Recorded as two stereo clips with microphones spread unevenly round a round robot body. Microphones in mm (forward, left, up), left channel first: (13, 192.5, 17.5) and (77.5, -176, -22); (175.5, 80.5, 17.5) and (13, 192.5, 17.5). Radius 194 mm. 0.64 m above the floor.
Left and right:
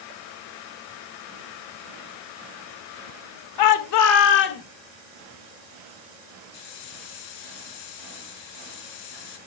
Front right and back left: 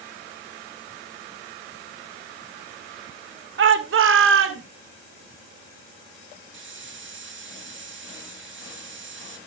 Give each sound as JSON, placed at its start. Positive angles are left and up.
{"t": 3.6, "sound": "a shout", "azimuth_deg": 140, "distance_m": 2.0}
{"t": 6.5, "sound": "a hiss", "azimuth_deg": 125, "distance_m": 4.0}